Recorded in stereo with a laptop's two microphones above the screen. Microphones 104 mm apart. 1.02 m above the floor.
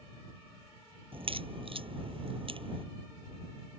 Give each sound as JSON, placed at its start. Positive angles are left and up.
{"t": 1.1, "sound": "a crack", "side_deg": -60}